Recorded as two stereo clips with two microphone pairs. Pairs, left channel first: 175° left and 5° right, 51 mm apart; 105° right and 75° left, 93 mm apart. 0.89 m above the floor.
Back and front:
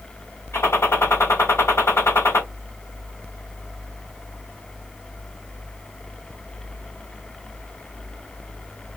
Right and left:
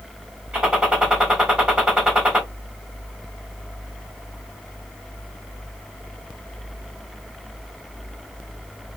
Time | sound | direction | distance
0.5 | a gunshot | 155° left | 2.5 m